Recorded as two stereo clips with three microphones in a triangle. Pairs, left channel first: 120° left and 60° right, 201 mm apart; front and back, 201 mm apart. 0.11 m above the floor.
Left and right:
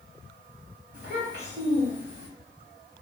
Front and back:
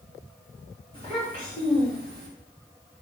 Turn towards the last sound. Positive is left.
turn(degrees=10)